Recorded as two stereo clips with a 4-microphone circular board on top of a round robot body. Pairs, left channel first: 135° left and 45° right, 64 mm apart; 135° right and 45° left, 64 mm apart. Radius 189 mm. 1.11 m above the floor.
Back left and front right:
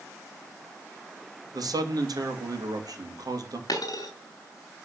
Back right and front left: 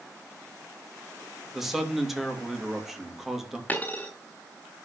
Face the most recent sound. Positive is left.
turn(degrees=155)